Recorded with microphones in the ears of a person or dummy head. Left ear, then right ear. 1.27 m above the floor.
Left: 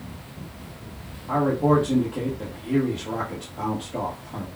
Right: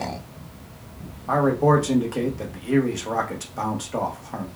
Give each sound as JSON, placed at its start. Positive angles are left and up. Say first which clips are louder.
{"t": 1.3, "sound": "a man speaking", "louder": "right 2 dB", "side_deg": -65, "distance_m": 1.1}